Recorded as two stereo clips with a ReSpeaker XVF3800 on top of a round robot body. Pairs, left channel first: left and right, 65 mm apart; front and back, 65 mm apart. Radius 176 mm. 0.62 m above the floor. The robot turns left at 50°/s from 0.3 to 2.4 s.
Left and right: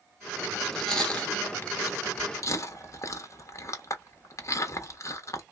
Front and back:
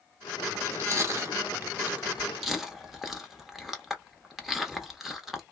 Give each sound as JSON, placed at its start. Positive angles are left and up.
{"t": 0.6, "sound": "chewing", "azimuth_deg": -175, "distance_m": 1.2}